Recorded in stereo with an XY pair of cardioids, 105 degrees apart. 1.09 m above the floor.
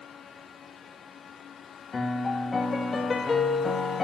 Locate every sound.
1.9 s a piano: 30° left, 1.9 m